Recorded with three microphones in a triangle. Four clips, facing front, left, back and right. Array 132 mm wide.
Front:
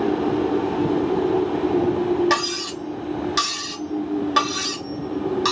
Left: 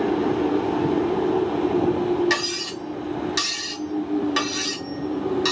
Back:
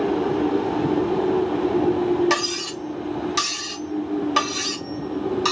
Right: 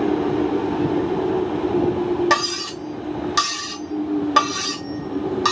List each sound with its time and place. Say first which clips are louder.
2.3 s cutlery clinking: right 5 dB, front 1 dB; 100° right, 1.2 m